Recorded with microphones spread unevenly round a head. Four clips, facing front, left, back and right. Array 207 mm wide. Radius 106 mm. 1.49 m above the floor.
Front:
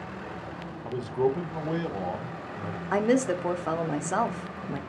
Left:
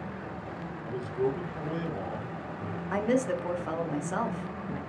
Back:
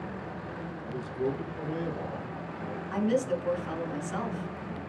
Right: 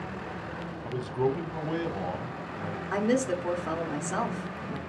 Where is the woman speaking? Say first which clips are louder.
Right 1 dB, front 4 dB; 5° left, 0.7 m.